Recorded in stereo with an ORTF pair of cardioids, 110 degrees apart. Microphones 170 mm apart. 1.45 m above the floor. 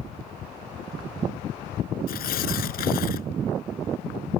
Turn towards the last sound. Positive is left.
turn(degrees=60)